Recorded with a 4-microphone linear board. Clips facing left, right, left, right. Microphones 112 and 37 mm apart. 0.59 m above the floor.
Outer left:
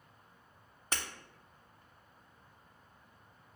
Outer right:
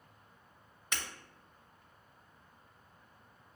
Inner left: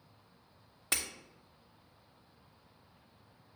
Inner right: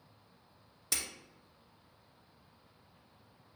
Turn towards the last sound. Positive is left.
turn(degrees=35)  # may be behind; listen again after turning